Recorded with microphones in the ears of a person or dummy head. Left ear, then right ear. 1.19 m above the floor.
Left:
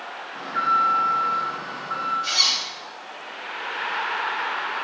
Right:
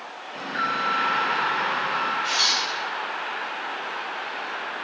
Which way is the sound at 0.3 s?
15° left (ahead or behind).